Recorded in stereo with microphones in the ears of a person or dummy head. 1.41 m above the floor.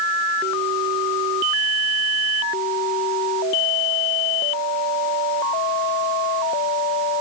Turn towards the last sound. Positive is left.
No sound to turn to.